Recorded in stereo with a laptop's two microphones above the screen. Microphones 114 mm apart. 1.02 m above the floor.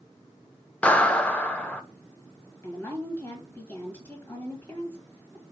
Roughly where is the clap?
Centre.